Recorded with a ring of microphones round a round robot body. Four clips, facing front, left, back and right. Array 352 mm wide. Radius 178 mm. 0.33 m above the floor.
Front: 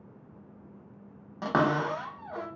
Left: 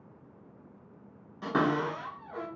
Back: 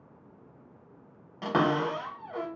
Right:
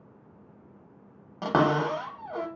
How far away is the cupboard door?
About 0.7 m.